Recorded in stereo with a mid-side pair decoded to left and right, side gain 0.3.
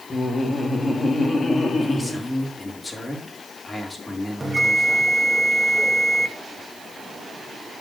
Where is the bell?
30° right, 2.5 m.